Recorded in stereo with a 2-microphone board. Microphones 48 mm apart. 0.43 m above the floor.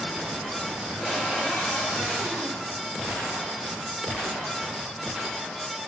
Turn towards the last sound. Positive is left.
turn(degrees=10)  # may be behind; listen again after turning